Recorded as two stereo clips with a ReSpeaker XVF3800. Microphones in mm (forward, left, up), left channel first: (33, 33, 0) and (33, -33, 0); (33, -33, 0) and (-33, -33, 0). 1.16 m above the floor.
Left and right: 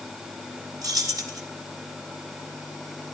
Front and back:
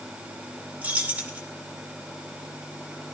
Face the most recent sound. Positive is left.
turn(degrees=-115)